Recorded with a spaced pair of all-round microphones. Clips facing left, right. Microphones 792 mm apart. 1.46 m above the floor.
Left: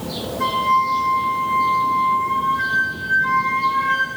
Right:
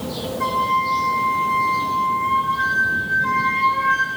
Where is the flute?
15° right (ahead or behind), 4 m.